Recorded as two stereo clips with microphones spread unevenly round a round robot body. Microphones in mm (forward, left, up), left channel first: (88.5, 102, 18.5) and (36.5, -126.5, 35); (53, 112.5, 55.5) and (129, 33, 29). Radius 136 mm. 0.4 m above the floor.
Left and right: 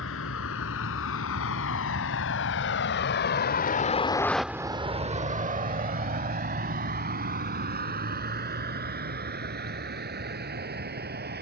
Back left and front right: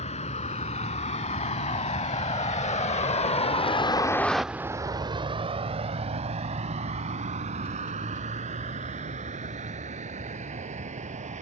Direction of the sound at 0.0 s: 120° left.